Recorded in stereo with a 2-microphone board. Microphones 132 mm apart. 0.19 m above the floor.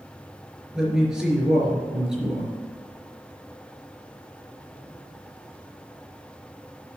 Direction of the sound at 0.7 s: 5° right (ahead or behind).